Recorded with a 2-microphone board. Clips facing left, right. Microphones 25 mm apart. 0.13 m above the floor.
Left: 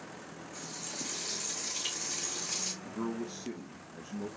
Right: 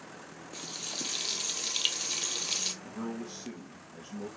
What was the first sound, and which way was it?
Frying, 60° right (ahead or behind).